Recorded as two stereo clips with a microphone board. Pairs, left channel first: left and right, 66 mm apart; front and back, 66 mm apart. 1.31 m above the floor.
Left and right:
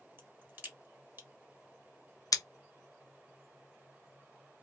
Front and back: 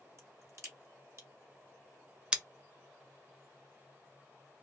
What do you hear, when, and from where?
0.2 s a crack: 145° right, 1.9 m
2.3 s scissors: 110° left, 0.6 m